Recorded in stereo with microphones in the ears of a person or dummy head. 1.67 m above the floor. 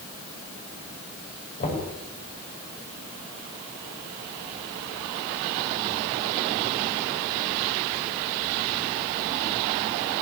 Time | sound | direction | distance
1.6 | knocking | 40° left (ahead or behind) | 8 m